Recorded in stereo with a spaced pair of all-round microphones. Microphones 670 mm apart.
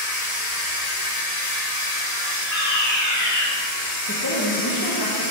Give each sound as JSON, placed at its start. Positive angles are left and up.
{"t": 0.0, "sound": "a machine running", "side_deg": 65, "distance_m": 1.4}
{"t": 2.5, "sound": "a fire alarm", "side_deg": 25, "distance_m": 1.2}
{"t": 4.1, "sound": "a woman speaking", "side_deg": 25, "distance_m": 0.8}